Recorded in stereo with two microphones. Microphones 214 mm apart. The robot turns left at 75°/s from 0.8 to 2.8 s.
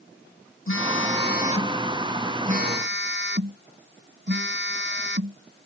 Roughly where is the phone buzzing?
Left.